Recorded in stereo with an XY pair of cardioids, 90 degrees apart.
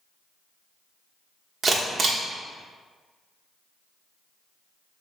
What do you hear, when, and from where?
1.6 s a camera shutter: 55° right, 1.0 m